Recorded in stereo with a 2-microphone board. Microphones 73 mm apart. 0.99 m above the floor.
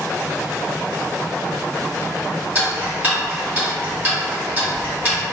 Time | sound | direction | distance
2.5 | ticking | 25° right (ahead or behind) | 1.2 m